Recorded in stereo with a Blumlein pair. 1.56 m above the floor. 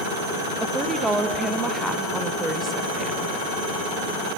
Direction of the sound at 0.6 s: 10° right.